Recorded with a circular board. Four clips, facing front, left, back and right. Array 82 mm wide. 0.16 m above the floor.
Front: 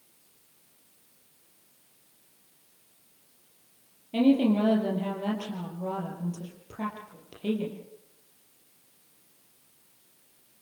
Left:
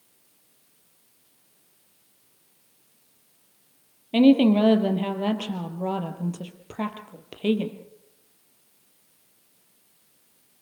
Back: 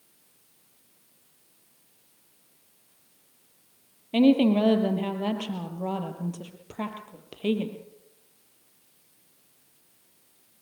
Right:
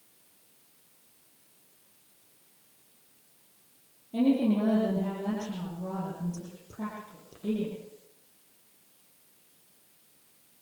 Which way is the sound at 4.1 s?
115° left.